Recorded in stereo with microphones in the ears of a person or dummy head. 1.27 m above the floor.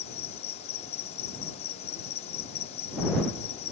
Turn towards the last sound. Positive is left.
turn(degrees=40)  # may be behind; listen again after turning